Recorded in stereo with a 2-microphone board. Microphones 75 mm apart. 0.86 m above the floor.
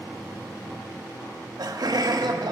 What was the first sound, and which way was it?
Laughter, 65° right (ahead or behind).